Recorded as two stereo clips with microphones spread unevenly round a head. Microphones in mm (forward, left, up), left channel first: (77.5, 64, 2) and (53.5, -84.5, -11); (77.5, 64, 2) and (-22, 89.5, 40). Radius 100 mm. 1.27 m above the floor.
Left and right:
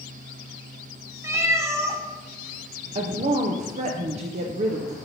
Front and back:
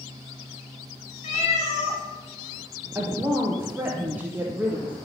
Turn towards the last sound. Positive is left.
turn(degrees=-100)